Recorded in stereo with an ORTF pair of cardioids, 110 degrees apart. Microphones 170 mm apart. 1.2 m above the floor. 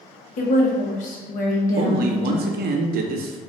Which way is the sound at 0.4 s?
55° left.